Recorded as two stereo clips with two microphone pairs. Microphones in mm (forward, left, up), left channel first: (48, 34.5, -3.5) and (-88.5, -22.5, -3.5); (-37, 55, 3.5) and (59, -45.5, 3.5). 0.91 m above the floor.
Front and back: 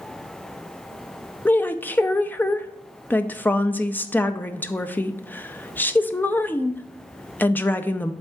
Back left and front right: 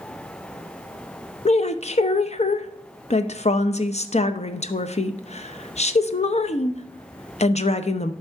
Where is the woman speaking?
100° left, 0.5 m.